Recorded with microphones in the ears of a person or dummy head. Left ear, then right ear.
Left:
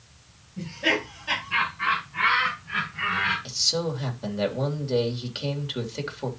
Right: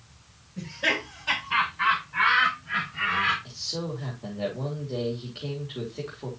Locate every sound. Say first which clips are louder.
0.6 s laughter: left 1 dB; 50° right (ahead or behind), 7.5 m; by 3.4 s 60° right (ahead or behind), 6.5 m
3.5 s a man speaking: left 8 dB; 55° left (ahead or behind), 3 m